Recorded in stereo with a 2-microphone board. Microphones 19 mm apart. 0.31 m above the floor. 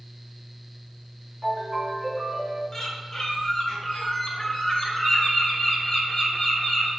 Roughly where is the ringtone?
Right.